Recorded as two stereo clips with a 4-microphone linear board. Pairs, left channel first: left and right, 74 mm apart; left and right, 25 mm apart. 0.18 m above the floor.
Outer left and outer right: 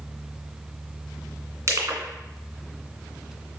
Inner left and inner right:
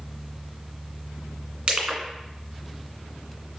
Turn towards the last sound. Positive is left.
turn(degrees=-40)  # may be behind; listen again after turning